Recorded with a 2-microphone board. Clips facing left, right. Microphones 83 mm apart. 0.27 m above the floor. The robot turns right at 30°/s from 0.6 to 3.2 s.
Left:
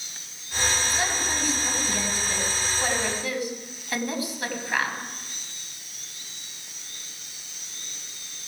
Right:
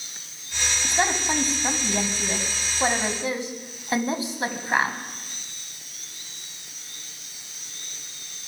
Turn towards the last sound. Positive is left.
turn(degrees=-35)